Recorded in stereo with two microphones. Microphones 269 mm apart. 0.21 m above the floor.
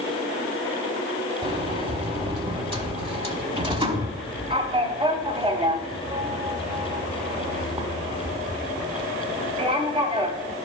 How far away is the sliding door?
About 1.0 m.